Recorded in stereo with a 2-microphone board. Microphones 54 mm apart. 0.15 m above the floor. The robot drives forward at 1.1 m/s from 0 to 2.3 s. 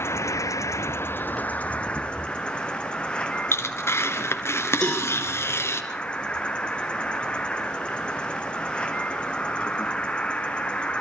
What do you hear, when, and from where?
0.0 s an insect: 50° left (ahead or behind), 0.8 m; by 11.0 s 20° left (ahead or behind), 2 m
3.5 s tearing paper: 50° left (ahead or behind), 2.5 m
4.8 s a cowbell: 15° left (ahead or behind), 8.5 m